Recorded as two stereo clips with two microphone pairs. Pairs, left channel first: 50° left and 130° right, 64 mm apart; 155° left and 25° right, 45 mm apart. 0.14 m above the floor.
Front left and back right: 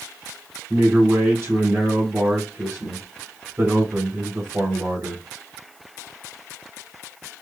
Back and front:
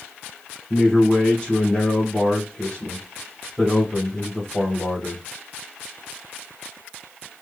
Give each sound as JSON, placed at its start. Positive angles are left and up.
{"t": 0.7, "sound": "a man speaking", "azimuth_deg": -145, "distance_m": 2.0}